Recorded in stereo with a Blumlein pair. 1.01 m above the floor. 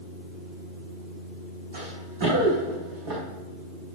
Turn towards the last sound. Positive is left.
turn(degrees=-40)